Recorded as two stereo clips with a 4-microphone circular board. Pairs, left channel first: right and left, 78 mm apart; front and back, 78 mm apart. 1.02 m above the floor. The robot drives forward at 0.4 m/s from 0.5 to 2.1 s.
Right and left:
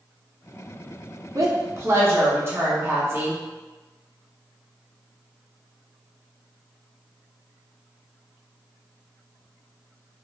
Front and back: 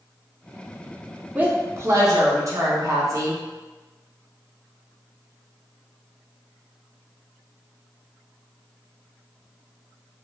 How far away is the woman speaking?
About 0.6 m.